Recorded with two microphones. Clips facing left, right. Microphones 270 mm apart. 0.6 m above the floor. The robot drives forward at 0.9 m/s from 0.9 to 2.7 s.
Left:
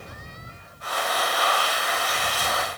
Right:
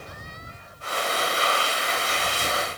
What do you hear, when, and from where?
Only background noise.